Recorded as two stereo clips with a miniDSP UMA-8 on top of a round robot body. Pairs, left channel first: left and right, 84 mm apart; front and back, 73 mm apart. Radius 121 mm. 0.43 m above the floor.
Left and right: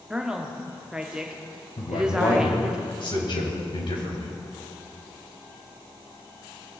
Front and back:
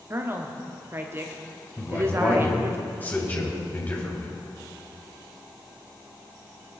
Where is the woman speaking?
165° right, 1.4 m.